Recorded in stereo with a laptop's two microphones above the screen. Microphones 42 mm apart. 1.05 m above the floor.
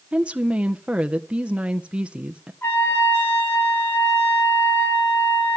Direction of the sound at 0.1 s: 30° right (ahead or behind).